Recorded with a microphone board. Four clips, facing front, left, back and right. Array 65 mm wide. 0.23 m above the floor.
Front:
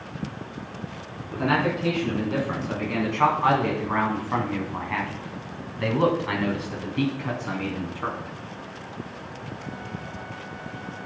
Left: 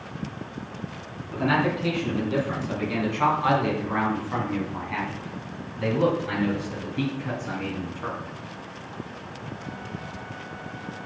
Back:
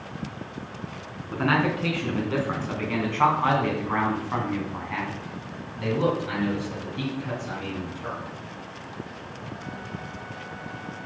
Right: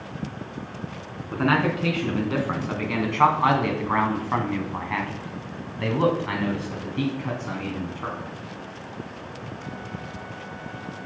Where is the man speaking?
120° right, 3 m; by 8.2 s 20° right, 2.5 m.